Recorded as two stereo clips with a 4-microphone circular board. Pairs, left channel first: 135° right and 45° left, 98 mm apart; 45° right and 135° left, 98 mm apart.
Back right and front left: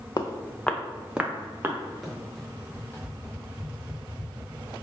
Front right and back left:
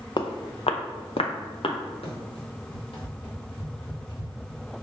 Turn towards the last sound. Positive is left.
turn(degrees=-80)